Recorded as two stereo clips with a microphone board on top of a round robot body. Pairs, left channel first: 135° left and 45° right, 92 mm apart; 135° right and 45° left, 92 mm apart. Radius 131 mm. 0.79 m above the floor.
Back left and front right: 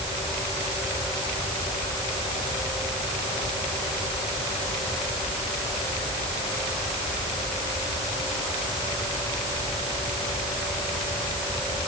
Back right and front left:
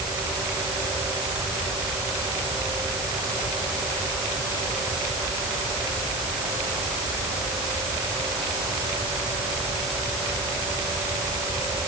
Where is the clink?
No clink in this recording.